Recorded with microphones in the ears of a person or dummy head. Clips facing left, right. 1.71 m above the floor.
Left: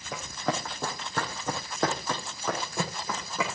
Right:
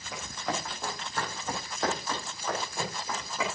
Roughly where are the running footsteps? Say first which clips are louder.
Left 3 dB; left.